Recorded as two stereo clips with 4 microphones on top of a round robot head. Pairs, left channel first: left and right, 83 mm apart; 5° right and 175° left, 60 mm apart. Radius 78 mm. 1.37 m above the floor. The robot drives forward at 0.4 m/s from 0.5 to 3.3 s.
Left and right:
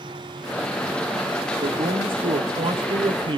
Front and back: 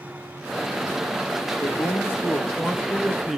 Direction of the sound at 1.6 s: 60° right.